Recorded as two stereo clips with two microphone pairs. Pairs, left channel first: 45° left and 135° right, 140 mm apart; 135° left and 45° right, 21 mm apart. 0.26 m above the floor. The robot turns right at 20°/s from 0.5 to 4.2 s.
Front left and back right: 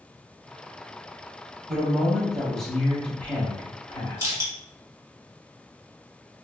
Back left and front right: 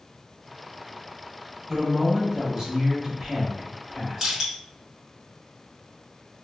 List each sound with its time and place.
1.7 s a man speaking: 60° right, 1.2 m; by 4.4 s 10° right, 1.2 m
4.2 s crushing: 85° right, 1.3 m